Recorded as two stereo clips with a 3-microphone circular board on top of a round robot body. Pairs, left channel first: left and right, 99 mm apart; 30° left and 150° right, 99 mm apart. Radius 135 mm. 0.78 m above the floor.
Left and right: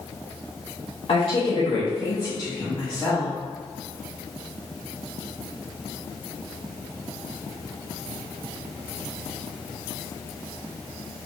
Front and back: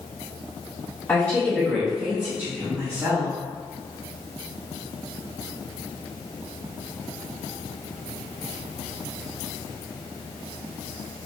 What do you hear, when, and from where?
1.1 s a woman speaking: 95° left, 1.8 m; by 3.3 s 175° left, 2.5 m